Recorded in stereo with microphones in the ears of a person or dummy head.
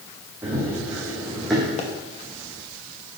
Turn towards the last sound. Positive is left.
turn(degrees=35)  # may be behind; listen again after turning